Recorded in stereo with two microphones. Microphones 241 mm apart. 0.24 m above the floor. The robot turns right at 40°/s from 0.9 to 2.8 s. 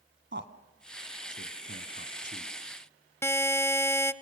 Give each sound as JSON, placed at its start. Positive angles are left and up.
{"t": 0.3, "sound": "a man speaking", "side_deg": -50, "distance_m": 1.8}
{"t": 3.2, "sound": "a buzzer", "side_deg": 10, "distance_m": 0.7}